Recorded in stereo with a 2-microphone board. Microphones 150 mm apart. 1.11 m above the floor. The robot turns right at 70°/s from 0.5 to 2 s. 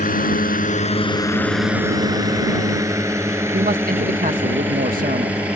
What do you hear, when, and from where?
0.0 s a drone: 65° left (ahead or behind); by 5.6 s 10° right (ahead or behind)
3.5 s a man speaking: 70° right (ahead or behind)